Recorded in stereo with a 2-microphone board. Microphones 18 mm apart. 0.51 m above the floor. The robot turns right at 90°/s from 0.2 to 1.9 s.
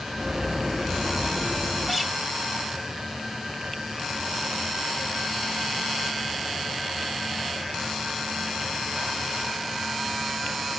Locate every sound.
1.9 s a guitar: 5° right (ahead or behind), 1.6 m; by 2.1 s 10° right (ahead or behind), 1.6 m